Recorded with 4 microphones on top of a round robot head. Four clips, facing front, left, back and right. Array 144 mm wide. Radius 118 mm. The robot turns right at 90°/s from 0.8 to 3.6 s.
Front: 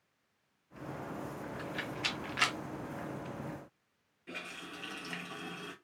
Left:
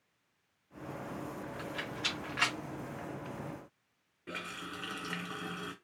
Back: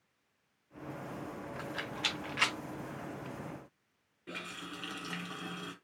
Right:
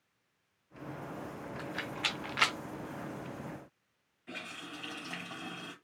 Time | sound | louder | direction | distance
1.6 | a rattle | right 3 dB, even | 150° right | 0.8 m
4.3 | a running tap | left 2 dB, back 1 dB | 110° left | 1.7 m